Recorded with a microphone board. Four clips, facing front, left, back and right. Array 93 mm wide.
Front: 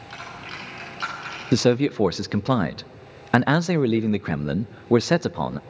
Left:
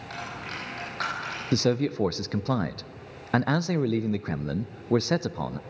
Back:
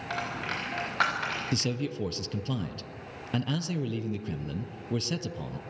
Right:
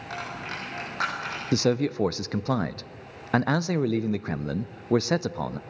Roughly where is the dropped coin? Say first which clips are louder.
Right 2 dB, back 4 dB; behind.